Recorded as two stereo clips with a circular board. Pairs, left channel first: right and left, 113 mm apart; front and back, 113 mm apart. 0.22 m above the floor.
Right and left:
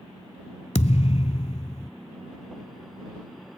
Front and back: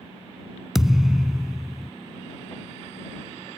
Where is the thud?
95° right.